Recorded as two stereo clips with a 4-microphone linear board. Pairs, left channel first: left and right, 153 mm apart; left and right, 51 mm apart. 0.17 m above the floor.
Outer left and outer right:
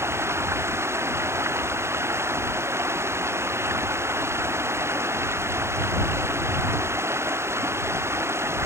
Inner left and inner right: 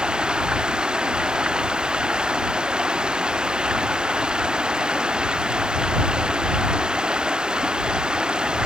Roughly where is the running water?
Centre.